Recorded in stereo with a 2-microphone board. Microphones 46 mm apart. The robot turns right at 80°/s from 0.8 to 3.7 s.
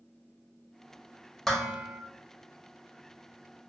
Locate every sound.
1.5 s dishes clattering: 5° left (ahead or behind), 0.7 m; by 2.0 s 15° right (ahead or behind), 0.7 m